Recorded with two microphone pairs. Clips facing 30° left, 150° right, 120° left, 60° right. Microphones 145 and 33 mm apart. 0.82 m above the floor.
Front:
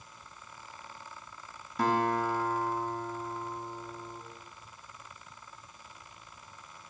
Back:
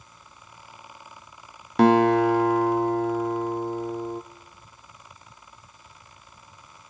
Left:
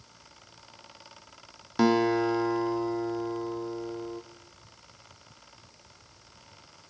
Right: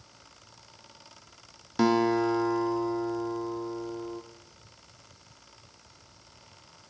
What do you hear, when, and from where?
1.8 s a guitar: 155° right, 0.6 m